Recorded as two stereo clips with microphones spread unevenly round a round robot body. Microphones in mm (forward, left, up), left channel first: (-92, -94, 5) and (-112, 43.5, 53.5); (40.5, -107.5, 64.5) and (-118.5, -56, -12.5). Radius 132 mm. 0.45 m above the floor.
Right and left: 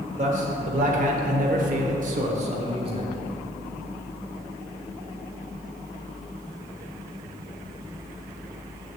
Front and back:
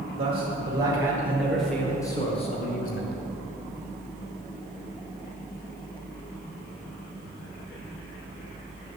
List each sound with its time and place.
0.2 s a man speaking: 135° left, 1.7 m; by 3.1 s 25° left, 1.3 m